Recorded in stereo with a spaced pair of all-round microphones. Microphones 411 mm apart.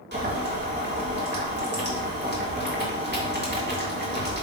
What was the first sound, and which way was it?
Boiling, 25° right (ahead or behind).